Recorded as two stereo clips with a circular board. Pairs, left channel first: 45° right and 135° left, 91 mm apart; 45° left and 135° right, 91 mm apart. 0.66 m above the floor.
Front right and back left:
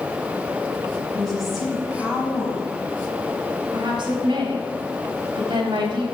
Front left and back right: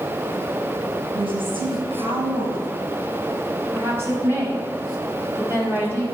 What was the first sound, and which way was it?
A woman speaking, 135° right.